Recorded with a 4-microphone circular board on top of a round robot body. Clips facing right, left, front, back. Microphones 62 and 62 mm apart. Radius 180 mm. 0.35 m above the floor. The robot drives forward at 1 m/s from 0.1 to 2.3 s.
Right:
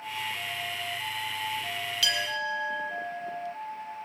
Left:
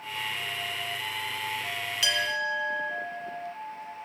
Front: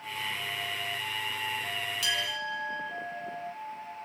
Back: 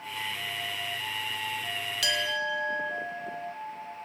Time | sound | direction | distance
2.0 | a clink | 155° left | 1.9 m